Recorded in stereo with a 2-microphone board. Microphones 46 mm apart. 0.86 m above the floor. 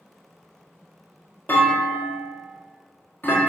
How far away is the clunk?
About 1.7 m.